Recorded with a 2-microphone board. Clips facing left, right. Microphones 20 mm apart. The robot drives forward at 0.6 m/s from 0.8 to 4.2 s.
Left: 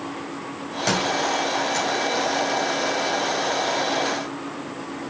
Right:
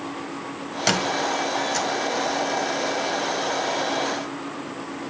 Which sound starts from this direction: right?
A squeak, at 0.9 s.